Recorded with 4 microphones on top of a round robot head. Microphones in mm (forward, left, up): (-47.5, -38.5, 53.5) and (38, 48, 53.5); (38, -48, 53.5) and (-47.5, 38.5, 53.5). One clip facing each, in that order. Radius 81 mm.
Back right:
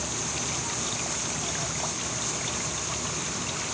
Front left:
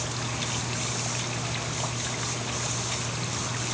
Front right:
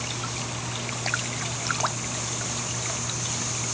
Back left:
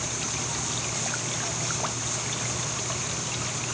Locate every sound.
Only background noise.